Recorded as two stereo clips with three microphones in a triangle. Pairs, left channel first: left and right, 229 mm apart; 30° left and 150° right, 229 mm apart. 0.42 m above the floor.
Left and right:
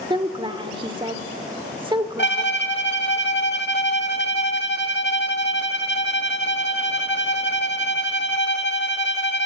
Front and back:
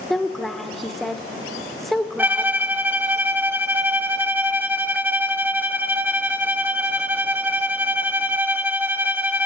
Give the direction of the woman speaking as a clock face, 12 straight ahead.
2 o'clock.